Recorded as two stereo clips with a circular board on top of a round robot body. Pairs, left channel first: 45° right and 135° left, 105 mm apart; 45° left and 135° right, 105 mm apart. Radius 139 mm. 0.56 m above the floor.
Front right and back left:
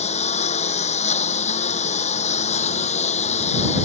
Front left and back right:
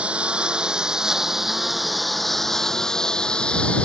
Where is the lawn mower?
55° right; by 3.9 s 35° right.